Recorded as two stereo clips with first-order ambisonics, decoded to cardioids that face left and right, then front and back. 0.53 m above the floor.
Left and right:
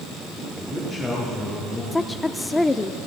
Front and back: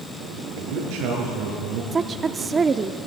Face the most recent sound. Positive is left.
turn(degrees=155)